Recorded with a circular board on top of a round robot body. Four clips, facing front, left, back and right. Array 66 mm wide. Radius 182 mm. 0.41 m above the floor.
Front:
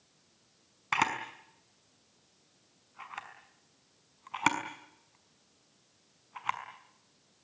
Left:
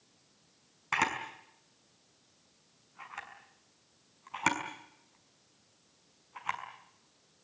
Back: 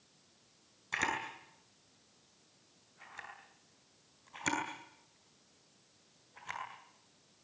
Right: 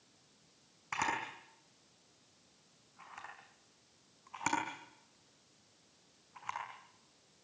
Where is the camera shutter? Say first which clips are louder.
Left 4 dB, front 5 dB; 25° left, 6 m.